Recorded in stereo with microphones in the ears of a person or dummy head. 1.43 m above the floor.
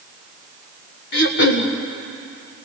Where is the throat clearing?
55° left (ahead or behind), 1.6 m.